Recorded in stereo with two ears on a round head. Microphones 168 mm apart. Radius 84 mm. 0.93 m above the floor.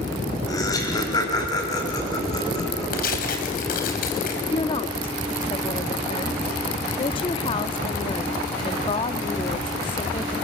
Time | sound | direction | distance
0.5 | laughter | 20° left (ahead or behind) | 5.5 m
2.9 | tearing paper | 55° left (ahead or behind) | 4.5 m
4.5 | a woman speaking | 30° left (ahead or behind) | 1.6 m